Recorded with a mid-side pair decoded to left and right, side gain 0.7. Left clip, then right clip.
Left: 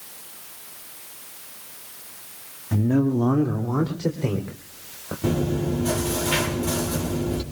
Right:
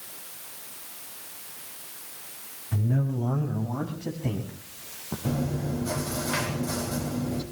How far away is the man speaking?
About 1.6 m.